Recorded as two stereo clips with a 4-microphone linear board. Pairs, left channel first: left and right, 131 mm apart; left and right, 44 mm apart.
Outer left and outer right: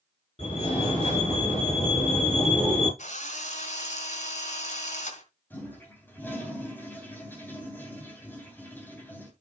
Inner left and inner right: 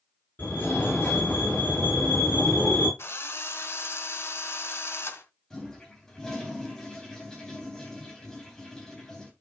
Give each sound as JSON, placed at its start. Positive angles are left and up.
{"t": 0.4, "sound": "a fire alarm", "side_deg": 45, "distance_m": 8.5}
{"t": 3.0, "sound": "a drill", "side_deg": 70, "distance_m": 1.7}
{"t": 5.5, "sound": "a toilet flushing", "side_deg": 15, "distance_m": 3.0}